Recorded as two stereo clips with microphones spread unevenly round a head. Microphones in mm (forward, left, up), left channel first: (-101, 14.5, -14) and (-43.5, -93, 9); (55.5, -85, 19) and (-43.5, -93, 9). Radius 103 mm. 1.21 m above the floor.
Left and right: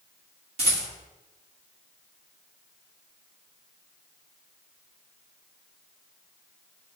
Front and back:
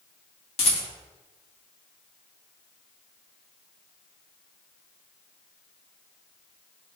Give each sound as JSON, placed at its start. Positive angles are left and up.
{"t": 0.6, "sound": "a rattle", "azimuth_deg": -5, "distance_m": 1.9}